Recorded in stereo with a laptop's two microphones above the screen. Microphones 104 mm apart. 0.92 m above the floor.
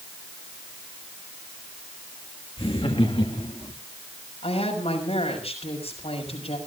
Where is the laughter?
60° left (ahead or behind), 1.8 m; by 3.7 s 65° left (ahead or behind), 2 m.